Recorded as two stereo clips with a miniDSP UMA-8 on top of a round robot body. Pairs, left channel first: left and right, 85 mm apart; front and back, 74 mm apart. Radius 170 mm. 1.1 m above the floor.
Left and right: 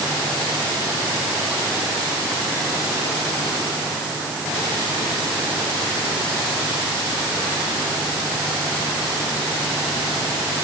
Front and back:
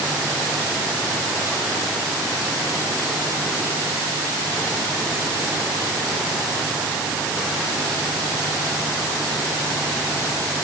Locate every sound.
Only background noise.